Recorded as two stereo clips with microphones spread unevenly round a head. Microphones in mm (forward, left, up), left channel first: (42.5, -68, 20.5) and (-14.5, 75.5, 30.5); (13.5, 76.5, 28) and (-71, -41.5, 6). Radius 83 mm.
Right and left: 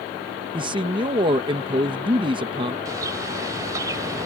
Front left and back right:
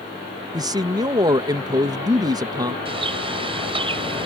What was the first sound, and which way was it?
A man speaking, 175° left.